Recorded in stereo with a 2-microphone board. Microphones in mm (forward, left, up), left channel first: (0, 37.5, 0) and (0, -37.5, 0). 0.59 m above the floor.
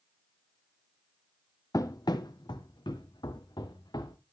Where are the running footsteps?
45° left (ahead or behind), 1.2 m; by 4.2 s 65° left (ahead or behind), 3 m.